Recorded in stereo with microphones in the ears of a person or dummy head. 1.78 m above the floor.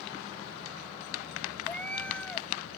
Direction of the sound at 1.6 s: 10° left (ahead or behind).